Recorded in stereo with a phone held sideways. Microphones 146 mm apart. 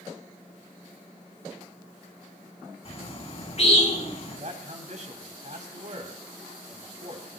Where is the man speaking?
60° right (ahead or behind), 3.5 m.